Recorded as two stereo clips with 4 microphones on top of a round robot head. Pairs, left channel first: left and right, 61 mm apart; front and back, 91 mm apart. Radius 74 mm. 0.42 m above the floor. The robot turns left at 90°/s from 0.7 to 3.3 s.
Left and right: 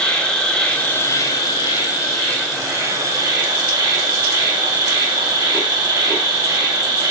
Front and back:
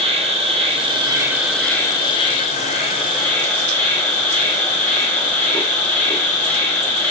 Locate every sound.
0.0 s an insect: 165° left, 3.5 m; by 7.1 s 70° right, 3.5 m